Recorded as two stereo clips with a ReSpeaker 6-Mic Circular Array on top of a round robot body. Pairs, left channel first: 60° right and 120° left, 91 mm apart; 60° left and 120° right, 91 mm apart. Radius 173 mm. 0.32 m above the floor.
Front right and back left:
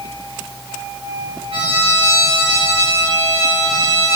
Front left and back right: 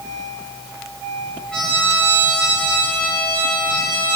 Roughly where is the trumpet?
Behind left.